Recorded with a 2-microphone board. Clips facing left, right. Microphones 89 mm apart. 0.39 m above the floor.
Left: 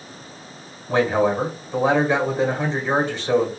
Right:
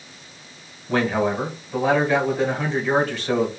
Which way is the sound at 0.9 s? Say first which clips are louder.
Left 2 dB; 25° left (ahead or behind).